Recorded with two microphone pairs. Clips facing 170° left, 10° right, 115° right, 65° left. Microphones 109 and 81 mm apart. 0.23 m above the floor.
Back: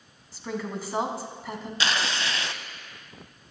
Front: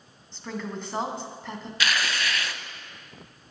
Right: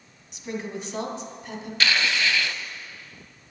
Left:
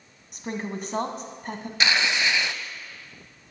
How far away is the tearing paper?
About 0.7 m.